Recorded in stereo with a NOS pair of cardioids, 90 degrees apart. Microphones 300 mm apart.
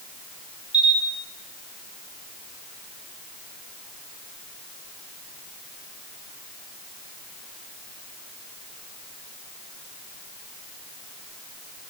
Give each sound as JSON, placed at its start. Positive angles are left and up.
{"t": 0.7, "sound": "a camera shutter", "azimuth_deg": -5, "distance_m": 0.6}